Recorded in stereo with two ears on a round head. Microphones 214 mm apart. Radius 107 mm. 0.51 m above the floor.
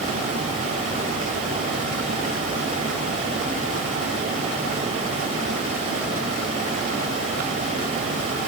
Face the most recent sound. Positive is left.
No sound to turn to.